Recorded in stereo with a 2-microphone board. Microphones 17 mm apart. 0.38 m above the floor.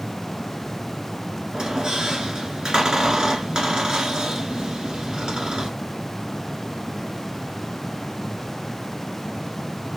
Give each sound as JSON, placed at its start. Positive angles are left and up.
{"t": 1.5, "sound": "a squeak", "side_deg": -55, "distance_m": 1.4}